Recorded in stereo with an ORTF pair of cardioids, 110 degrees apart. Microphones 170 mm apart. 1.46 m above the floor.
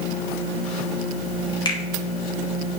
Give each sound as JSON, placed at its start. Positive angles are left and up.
{"t": 1.6, "sound": "a finger snap", "azimuth_deg": 25, "distance_m": 2.5}